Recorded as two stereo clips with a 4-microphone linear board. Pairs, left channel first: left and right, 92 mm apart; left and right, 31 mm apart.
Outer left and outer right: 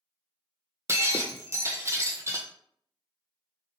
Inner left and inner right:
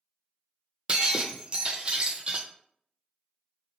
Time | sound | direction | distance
0.9 | breaking glass | 30° right (ahead or behind) | 0.6 m